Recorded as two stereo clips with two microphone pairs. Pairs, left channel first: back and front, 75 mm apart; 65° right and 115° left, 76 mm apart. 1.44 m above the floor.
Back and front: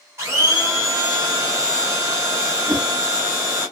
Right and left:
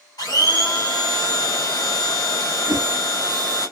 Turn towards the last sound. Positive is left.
turn(degrees=-65)